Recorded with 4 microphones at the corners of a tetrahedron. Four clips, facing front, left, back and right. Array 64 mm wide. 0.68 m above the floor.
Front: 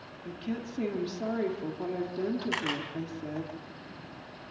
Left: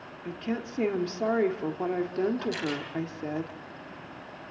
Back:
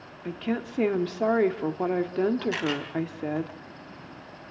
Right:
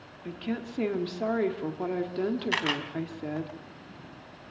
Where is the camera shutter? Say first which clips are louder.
Right 3 dB, back 3 dB; 75° right, 4 m.